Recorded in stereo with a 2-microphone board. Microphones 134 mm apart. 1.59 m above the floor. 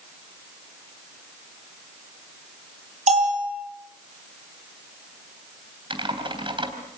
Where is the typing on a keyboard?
40° right (ahead or behind), 3.5 m.